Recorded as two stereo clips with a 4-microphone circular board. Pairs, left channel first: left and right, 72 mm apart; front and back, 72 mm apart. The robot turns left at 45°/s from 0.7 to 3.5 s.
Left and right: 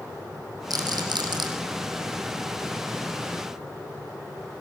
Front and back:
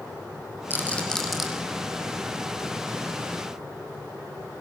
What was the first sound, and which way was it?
A rattle, 60° right.